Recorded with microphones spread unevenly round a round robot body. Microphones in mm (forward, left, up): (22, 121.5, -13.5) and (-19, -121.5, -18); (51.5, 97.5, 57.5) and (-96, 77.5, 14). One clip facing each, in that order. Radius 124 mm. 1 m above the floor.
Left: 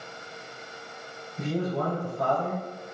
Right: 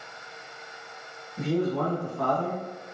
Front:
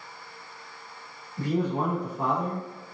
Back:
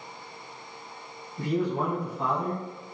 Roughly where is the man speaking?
Ahead right.